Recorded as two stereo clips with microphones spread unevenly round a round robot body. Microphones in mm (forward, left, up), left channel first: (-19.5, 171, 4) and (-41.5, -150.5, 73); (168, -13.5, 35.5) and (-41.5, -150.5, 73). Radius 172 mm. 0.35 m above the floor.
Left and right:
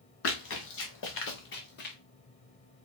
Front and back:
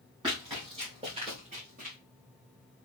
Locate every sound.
0.2 s running footsteps: 135° left, 3.5 m; by 2.0 s 150° left, 2 m